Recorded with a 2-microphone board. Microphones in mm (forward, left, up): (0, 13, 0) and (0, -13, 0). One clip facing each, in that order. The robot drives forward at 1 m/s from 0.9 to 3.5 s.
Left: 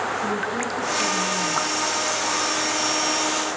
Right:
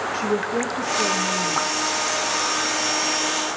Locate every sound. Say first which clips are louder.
0.1 s a woman speaking: right 2 dB; 55° right (ahead or behind), 2.5 m; by 1.8 s 45° right (ahead or behind), 3 m